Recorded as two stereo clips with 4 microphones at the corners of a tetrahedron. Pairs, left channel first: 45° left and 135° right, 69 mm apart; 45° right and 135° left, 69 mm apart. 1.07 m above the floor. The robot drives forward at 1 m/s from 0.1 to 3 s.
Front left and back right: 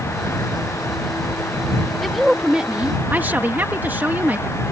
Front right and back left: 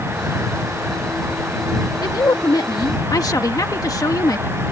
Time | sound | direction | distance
2.0 | a woman speaking | 45° right | ?